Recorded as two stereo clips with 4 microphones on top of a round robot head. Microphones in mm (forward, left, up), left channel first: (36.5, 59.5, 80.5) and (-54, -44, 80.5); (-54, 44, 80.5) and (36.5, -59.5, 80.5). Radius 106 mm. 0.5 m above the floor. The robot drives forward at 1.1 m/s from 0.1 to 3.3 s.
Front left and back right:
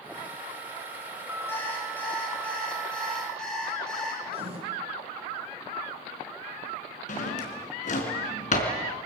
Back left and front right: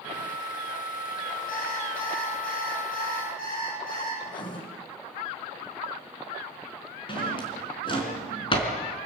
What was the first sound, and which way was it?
An alarm clock, 125° left.